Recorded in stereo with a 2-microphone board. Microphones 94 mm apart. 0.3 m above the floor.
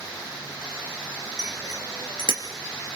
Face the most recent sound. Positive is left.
turn(degrees=-55)  # may be behind; listen again after turning